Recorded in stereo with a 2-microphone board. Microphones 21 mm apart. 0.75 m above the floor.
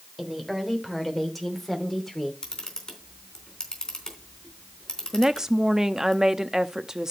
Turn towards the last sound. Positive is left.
turn(degrees=-30)  # may be behind; listen again after turning